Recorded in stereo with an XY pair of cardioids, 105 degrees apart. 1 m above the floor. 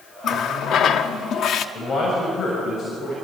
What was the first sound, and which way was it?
A running tap, 65° left.